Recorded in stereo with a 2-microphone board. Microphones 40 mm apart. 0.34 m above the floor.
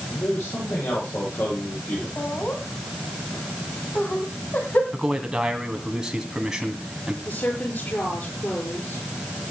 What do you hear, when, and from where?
0.1 s a man speaking: 80° left, 9.5 m
2.2 s laughter: 55° left (ahead or behind), 2 m
4.9 s a man speaking: 10° right (ahead or behind), 2.5 m
7.2 s a woman speaking: 60° left (ahead or behind), 7 m